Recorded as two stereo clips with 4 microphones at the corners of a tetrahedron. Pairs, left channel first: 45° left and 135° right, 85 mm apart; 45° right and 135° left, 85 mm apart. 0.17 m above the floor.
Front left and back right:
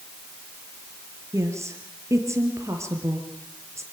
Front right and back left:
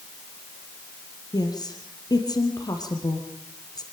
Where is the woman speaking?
80° right, 4.5 m.